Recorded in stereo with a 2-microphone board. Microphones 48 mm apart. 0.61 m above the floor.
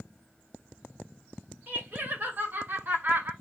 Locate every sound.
1.7 s laughter: 45° right (ahead or behind), 2.5 m